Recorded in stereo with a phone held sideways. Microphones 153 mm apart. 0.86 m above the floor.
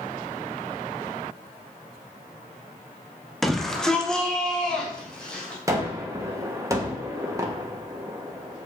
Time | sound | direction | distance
3.4 | a shout | centre (ahead or behind) | 0.9 m
5.7 | a gunshot | 20° right (ahead or behind) | 1.4 m